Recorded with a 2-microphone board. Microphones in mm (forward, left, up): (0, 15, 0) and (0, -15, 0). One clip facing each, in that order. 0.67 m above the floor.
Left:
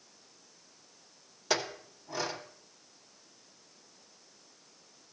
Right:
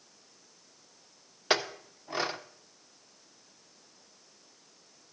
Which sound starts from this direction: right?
A clink, at 1.5 s.